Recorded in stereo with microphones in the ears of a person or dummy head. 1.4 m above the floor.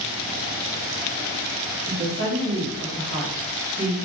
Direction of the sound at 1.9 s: 40° right (ahead or behind).